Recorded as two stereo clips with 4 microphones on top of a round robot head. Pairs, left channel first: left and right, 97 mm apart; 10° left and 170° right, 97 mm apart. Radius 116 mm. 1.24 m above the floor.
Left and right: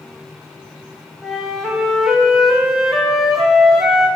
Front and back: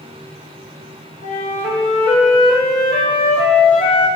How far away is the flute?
About 0.7 m.